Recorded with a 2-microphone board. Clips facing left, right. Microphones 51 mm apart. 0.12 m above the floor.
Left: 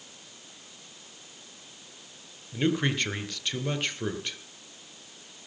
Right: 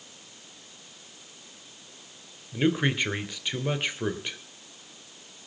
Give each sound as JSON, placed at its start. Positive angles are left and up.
{"t": 2.5, "sound": "a man speaking", "side_deg": -15, "distance_m": 2.0}